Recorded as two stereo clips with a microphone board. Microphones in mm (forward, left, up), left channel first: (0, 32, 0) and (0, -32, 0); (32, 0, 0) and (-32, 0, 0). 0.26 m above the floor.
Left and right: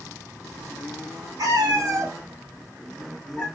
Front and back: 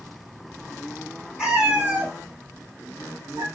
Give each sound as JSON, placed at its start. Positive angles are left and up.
{"t": 1.4, "sound": "a cat meowing", "azimuth_deg": -105, "distance_m": 1.3}